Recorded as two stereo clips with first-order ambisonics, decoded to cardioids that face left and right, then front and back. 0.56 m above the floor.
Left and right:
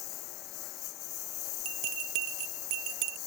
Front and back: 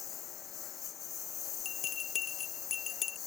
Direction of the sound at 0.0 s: 55° left.